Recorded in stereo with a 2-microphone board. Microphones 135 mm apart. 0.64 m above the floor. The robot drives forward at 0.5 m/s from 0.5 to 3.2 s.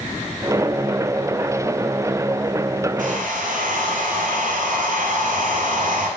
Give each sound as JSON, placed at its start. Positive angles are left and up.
{"t": 3.0, "sound": "a hair dryer", "side_deg": -75, "distance_m": 3.0}